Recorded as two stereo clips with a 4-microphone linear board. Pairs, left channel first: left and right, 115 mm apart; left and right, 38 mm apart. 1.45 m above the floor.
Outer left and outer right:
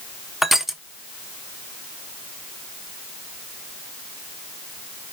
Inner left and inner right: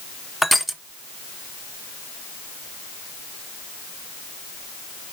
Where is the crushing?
5° right (ahead or behind), 0.7 m.